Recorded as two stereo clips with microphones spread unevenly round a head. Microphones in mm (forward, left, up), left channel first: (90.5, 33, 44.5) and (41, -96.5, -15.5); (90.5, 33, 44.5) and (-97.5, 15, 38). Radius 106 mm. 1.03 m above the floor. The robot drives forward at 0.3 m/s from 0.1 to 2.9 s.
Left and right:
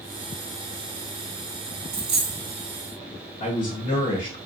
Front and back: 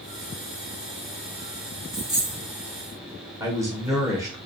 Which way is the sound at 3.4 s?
120° left.